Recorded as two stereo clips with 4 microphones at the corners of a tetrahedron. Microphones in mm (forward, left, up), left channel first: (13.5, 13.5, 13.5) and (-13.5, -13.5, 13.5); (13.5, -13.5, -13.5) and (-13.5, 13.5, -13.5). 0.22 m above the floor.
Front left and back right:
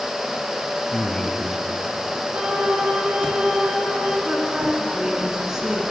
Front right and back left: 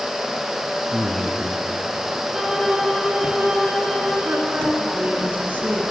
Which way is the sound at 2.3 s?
140° right.